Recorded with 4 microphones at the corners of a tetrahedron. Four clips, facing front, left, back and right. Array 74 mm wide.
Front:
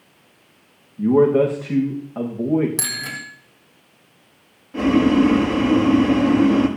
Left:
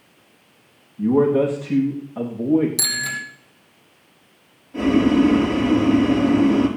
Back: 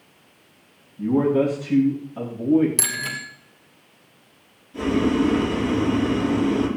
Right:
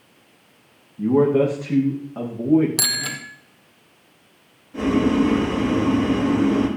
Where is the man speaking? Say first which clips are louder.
Even, front 5 dB; 20° right, 7.5 m.